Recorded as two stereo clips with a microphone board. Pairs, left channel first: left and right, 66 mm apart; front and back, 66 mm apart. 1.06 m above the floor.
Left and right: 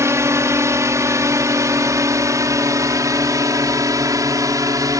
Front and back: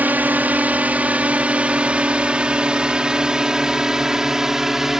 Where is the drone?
120° right; by 5.0 s 95° right.